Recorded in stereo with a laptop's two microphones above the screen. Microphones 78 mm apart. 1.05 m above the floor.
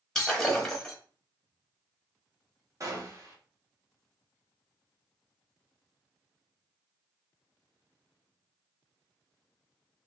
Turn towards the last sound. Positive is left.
turn(degrees=-40)  # may be behind; listen again after turning